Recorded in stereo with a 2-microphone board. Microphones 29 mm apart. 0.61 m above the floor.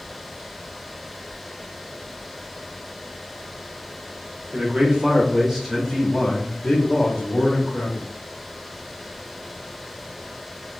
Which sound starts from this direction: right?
A man speaking, at 4.5 s.